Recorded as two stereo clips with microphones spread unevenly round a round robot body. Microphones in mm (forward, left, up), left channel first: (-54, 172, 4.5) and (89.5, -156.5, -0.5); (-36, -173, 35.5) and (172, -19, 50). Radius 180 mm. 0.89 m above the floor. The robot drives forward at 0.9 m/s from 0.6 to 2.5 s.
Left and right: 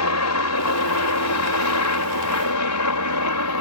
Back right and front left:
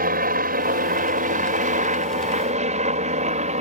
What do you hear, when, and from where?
0.0 s a helicopter: 90° left; by 3.6 s 95° left